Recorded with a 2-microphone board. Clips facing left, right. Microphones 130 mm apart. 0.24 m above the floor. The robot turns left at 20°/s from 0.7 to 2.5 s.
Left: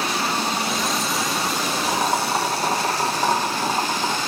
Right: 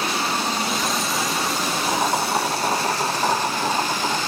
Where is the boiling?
5° left (ahead or behind), 3 m; by 4.2 s 20° left (ahead or behind), 3 m.